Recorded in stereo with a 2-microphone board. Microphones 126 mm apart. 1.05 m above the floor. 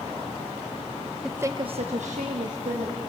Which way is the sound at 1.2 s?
5° right (ahead or behind).